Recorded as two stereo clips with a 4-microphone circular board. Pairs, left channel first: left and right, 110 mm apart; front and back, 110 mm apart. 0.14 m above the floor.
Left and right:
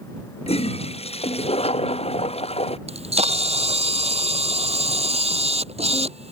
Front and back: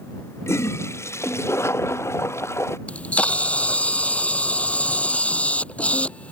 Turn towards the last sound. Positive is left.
turn(degrees=-80)